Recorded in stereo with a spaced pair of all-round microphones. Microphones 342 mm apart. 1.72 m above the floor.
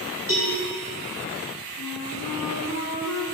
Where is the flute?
65° left (ahead or behind), 2 m.